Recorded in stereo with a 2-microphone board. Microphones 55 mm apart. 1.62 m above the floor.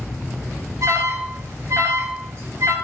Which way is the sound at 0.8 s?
70° right (ahead or behind).